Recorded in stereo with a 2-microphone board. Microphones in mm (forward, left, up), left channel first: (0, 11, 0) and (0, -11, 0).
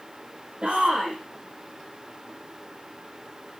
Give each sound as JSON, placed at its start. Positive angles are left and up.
{"t": 0.6, "sound": "a shout", "side_deg": -45, "distance_m": 4.5}